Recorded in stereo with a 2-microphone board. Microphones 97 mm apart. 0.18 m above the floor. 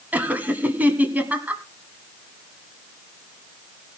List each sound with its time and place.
0.1 s laughter: 15° right (ahead or behind), 1.3 m